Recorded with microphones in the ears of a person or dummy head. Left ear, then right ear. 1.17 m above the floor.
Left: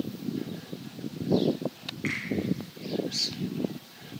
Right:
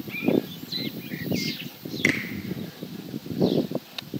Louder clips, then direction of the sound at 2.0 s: Right 9 dB; 80° right.